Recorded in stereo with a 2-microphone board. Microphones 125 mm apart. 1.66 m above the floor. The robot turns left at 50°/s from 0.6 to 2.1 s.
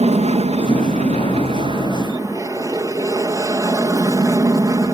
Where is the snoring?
No snoring in this recording.